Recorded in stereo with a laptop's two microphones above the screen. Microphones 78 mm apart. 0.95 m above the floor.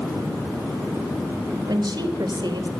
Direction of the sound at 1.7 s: 65° right (ahead or behind).